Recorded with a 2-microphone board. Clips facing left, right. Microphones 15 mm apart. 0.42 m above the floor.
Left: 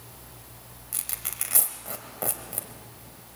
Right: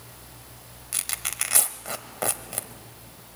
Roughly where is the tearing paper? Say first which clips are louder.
Right 6 dB; right.